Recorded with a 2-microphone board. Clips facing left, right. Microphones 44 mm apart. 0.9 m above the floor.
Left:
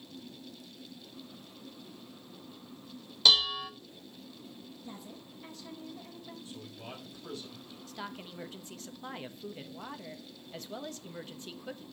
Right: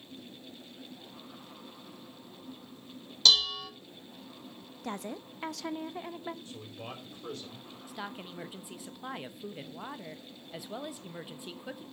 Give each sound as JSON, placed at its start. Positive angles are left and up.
{"t": 3.2, "sound": "dishes clattering", "side_deg": 15, "distance_m": 0.8}
{"t": 4.8, "sound": "a woman speaking", "side_deg": -65, "distance_m": 0.7}
{"t": 6.5, "sound": "a man speaking", "side_deg": -40, "distance_m": 4.5}
{"t": 7.9, "sound": "a woman speaking", "side_deg": -10, "distance_m": 0.8}